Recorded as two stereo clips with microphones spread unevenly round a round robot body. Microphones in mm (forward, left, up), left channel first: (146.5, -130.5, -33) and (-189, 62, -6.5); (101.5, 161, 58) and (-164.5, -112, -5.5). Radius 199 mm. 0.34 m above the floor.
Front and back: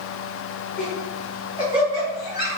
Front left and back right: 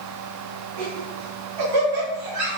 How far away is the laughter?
About 4 m.